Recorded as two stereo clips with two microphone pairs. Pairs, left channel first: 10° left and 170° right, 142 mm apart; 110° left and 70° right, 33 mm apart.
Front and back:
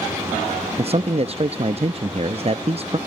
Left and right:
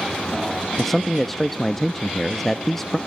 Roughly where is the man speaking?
Behind.